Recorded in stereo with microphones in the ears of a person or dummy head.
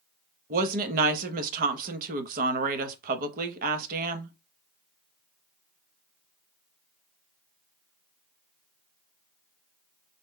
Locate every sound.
0.5 s a woman speaking: 45° right (ahead or behind), 0.8 m